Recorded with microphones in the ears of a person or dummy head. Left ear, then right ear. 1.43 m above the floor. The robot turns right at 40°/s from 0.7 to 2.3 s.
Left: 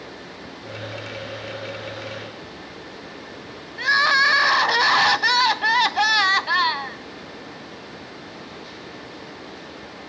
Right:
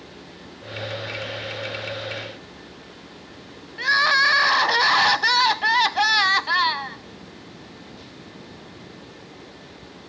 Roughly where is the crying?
Centre.